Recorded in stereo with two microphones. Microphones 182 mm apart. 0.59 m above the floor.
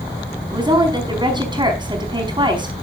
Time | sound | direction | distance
0.5 | a woman speaking | 25° right (ahead or behind) | 4.5 m